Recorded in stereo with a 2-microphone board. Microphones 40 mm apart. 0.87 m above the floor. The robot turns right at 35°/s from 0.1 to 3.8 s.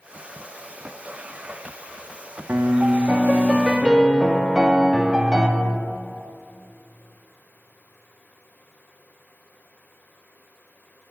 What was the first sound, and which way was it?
A piano, 65° right.